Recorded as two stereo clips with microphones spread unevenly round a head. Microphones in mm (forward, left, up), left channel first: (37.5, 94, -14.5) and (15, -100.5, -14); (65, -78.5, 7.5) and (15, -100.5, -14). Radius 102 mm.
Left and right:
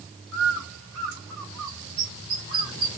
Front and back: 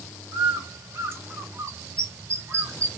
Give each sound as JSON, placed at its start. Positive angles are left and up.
{"t": 0.3, "sound": "a bird", "azimuth_deg": -125, "distance_m": 1.6}